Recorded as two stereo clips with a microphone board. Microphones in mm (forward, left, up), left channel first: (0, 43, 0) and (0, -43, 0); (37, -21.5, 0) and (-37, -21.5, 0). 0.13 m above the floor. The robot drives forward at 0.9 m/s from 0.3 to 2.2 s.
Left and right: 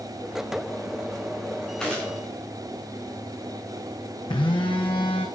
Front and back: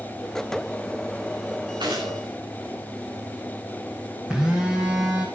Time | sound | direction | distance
1.8 | a gunshot | 170° left | 6.5 m
4.3 | a phone buzzing | 100° left | 3.5 m